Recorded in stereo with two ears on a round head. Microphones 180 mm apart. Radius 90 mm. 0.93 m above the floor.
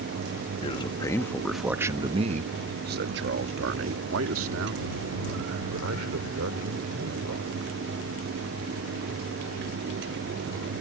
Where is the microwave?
No microwave in this recording.